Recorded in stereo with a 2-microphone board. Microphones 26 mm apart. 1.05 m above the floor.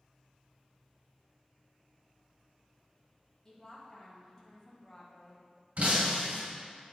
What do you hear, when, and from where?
3.5 s a woman speaking: 15° left (ahead or behind), 1.5 m
5.8 s breaking glass: 60° right (ahead or behind), 1.8 m